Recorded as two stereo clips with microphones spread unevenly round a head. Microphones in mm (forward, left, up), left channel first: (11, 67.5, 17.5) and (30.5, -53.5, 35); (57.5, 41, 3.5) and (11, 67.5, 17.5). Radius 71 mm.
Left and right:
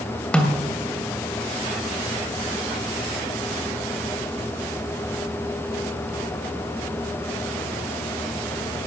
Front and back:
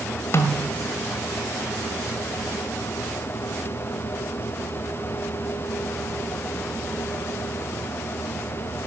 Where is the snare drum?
15° left, 2 m.